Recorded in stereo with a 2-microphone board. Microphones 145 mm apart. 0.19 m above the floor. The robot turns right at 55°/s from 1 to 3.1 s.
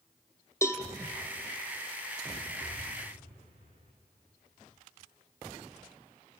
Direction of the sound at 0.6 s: 20° left (ahead or behind).